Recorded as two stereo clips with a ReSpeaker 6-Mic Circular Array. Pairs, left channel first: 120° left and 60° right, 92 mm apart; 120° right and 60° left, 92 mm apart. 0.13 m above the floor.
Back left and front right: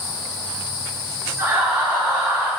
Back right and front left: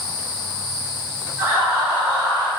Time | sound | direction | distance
1.4 | laughter | straight ahead | 1.8 m